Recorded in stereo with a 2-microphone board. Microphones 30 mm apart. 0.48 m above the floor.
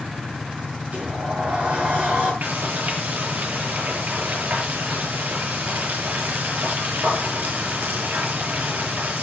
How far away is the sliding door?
About 9.5 m.